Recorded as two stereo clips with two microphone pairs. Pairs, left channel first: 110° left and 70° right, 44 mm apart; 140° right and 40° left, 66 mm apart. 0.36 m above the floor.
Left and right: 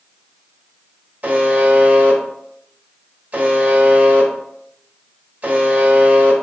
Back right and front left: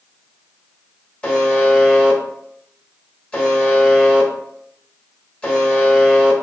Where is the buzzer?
75° right, 1.1 m.